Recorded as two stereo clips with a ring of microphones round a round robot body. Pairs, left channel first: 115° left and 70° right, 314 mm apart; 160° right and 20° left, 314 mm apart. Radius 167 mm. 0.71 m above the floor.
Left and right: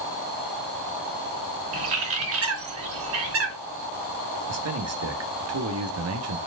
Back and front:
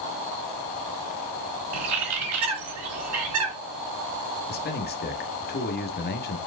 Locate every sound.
1.7 s a bird: 20° right, 3 m
4.5 s a man speaking: 100° right, 1.5 m